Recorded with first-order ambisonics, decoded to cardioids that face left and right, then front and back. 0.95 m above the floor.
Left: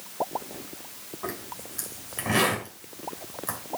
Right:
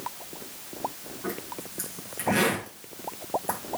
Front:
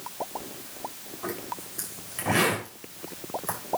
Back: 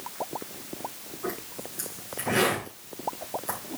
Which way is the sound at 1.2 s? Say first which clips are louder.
Right 1 dB, front 1 dB; 65° left.